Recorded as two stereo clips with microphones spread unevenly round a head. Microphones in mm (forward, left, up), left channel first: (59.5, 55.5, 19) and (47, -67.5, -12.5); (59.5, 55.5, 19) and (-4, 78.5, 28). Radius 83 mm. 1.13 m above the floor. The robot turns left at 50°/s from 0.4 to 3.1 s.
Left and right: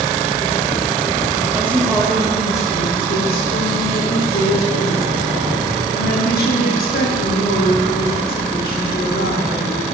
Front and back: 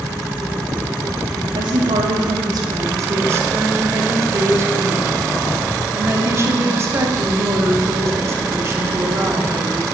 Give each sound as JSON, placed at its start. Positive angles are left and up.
{"t": 1.5, "sound": "a woman speaking", "azimuth_deg": -170, "distance_m": 3.0}